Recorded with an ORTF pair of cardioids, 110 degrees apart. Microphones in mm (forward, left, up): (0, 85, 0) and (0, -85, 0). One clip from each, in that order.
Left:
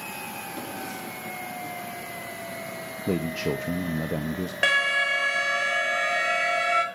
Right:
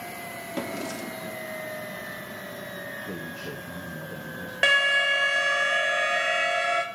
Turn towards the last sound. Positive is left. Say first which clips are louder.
# right 1 dB
turn(degrees=-10)